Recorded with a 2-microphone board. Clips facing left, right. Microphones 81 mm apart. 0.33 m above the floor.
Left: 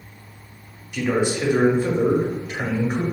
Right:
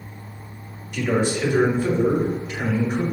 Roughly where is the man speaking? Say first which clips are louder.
Even; centre.